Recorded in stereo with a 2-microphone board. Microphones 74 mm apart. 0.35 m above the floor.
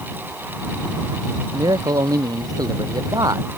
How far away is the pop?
I don't hear a pop.